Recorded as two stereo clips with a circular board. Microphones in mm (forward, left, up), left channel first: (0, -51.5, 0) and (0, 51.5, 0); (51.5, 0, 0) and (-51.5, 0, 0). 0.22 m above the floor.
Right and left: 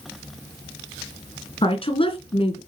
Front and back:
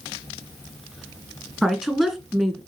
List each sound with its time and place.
1.6 s a woman speaking: 90° right, 2 m